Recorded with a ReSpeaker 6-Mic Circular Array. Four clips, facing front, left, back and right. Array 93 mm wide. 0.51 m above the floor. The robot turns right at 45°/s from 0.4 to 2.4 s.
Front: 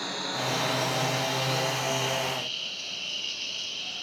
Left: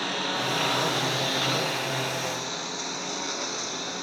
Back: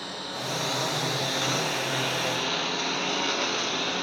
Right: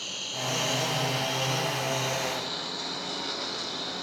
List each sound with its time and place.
0.0 s a lawn mower: 80° left; by 4.0 s 170° left